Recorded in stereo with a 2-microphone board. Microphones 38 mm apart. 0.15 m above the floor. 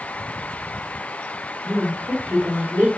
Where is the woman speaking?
50° right (ahead or behind), 2 m.